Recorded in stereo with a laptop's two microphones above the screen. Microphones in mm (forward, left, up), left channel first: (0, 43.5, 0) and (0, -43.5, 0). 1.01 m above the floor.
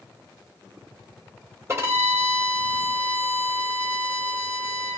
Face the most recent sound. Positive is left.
turn(degrees=-30)  # may be behind; listen again after turning